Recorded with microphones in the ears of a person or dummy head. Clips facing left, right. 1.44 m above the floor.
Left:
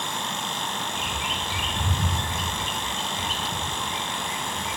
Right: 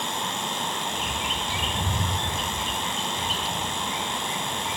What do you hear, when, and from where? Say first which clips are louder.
0.9 s a bird: right 1 dB; 25° right (ahead or behind), 0.6 m